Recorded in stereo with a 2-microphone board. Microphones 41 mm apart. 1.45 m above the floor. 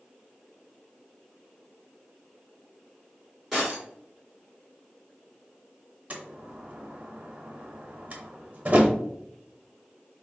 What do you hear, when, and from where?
3.5 s breaking glass: centre (ahead or behind), 2 m
6.1 s a door slam: 35° right (ahead or behind), 0.9 m